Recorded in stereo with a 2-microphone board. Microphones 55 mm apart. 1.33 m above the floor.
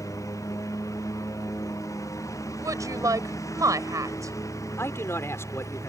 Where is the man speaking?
60° left (ahead or behind).